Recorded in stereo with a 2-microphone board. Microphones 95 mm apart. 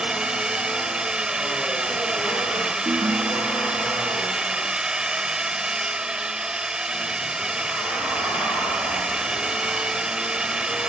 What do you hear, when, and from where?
0.0 s a drone: 5° right (ahead or behind)
2.9 s a ringtone: 45° right (ahead or behind)